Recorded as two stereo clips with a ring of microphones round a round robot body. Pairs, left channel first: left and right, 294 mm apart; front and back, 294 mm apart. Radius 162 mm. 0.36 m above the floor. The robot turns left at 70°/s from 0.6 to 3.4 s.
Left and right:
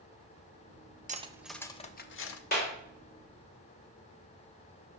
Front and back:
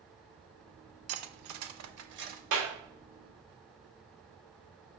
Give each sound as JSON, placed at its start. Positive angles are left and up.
{"t": 1.1, "sound": "cutlery clinking", "azimuth_deg": -150, "distance_m": 0.7}
{"t": 2.5, "sound": "a clap", "azimuth_deg": 150, "distance_m": 3.5}